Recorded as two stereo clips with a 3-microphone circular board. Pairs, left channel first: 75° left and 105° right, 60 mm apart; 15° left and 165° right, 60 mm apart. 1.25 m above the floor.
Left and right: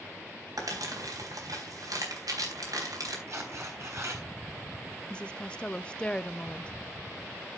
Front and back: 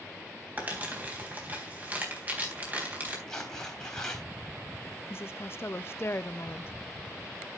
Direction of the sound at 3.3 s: 65° right.